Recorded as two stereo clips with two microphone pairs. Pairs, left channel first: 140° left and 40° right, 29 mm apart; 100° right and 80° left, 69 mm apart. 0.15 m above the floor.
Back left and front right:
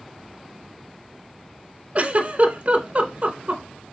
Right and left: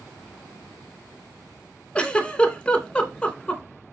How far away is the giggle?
About 0.7 m.